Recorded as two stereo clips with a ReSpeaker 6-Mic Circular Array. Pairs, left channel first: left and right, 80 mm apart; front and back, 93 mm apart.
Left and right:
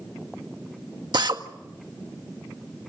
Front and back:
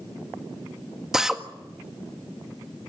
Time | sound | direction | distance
1.1 | a drill | 95° right | 1.8 m